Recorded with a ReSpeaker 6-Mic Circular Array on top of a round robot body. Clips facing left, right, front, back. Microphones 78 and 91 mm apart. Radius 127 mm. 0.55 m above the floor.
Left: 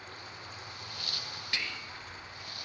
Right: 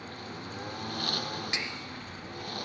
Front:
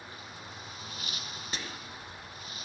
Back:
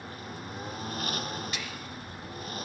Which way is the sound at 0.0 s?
135° right.